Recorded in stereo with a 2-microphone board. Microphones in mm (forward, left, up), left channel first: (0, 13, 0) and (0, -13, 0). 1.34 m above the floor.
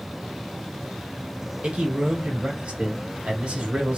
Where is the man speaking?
55° right (ahead or behind), 1.2 m.